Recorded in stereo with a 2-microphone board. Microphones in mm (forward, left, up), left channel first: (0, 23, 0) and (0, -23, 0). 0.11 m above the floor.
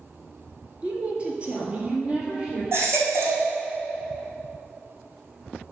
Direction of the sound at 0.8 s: 20° right (ahead or behind).